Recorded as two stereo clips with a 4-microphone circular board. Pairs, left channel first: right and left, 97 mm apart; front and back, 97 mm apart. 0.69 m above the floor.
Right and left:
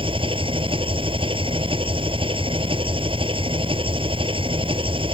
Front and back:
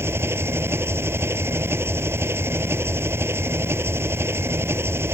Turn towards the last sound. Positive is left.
turn(degrees=115)